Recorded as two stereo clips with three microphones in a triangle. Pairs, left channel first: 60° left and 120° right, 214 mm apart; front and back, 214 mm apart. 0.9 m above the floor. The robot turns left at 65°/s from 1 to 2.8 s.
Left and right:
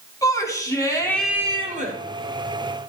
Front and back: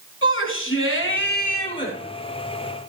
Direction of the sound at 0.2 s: 15° right.